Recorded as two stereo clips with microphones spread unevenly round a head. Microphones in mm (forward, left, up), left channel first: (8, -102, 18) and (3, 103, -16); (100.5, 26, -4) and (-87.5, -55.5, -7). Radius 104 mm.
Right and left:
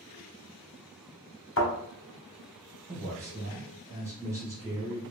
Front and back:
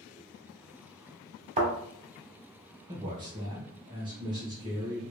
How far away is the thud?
About 1.3 m.